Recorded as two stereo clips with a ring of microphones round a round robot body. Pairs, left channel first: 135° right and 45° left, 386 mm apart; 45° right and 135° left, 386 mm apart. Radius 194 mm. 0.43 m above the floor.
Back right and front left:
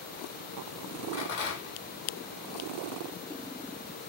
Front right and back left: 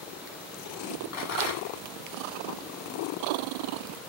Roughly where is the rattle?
Right.